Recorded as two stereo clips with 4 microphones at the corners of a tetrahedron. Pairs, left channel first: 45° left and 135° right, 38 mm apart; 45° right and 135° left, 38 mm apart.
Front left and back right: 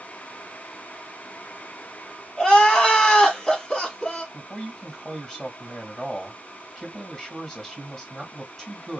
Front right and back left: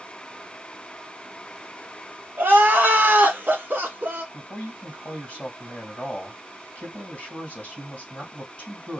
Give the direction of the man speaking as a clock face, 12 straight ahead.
12 o'clock.